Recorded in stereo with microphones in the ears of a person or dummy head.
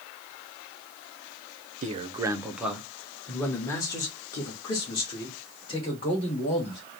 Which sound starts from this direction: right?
A man speaking, at 1.8 s.